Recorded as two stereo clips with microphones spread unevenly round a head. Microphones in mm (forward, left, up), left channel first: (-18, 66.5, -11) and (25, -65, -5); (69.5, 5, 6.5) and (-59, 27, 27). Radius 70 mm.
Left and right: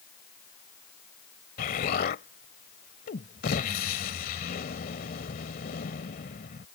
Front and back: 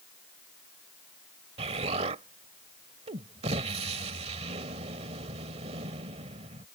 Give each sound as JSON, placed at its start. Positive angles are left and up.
{"t": 1.6, "sound": "an explosion", "azimuth_deg": 135}